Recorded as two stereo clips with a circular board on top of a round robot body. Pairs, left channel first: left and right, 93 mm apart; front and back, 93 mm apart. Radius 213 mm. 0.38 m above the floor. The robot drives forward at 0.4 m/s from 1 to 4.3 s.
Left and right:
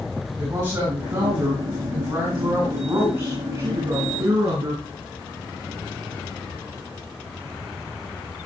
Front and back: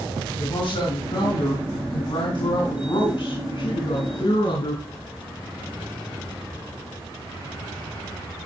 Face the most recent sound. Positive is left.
turn(degrees=-45)